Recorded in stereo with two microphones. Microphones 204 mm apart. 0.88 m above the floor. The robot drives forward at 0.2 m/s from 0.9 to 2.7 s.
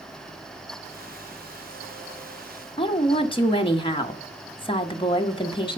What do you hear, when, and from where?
2.8 s a woman speaking: 25° left (ahead or behind), 0.9 m